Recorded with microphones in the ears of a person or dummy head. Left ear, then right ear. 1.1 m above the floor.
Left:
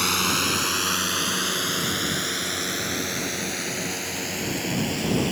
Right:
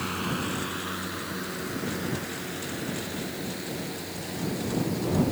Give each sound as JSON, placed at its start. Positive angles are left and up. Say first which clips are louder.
{"t": 0.0, "sound": "a drone", "louder": "left 9 dB", "side_deg": 80}